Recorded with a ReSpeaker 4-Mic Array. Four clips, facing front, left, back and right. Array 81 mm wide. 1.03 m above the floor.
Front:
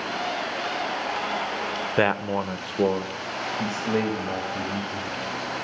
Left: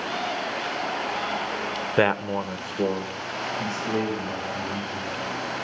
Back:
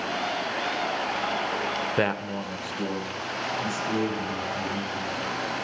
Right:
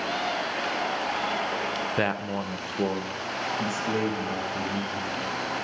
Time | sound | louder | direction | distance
2.0 | a man speaking | left 8 dB, front 7 dB | 65° left | 0.6 m